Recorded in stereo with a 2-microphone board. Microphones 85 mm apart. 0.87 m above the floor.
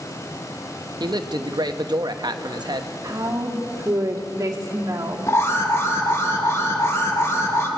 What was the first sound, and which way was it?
A man speaking, 60° right (ahead or behind).